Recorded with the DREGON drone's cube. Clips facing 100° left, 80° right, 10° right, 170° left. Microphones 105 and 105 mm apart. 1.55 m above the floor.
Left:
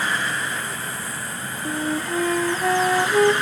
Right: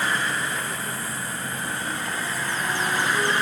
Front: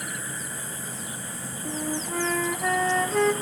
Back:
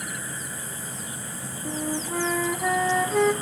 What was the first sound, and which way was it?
A flute, 85° left.